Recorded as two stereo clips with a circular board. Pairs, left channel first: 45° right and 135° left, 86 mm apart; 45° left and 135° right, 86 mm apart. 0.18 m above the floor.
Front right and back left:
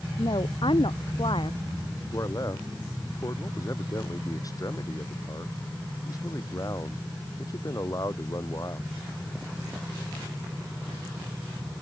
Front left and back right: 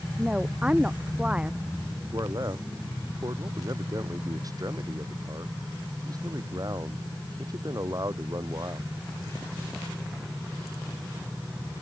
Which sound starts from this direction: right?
A man speaking, at 2.1 s.